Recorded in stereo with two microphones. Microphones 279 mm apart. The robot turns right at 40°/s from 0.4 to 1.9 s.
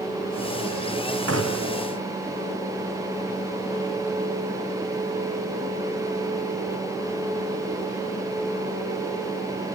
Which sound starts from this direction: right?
A gunshot, at 1.3 s.